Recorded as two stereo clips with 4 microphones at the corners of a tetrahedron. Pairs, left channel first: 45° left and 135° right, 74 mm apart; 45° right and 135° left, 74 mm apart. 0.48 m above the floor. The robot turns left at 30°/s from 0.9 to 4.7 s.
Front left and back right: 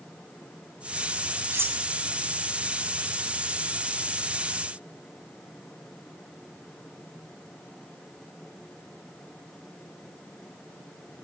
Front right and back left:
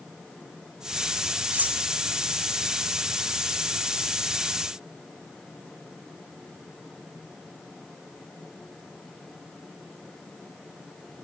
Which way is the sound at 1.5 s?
165° right.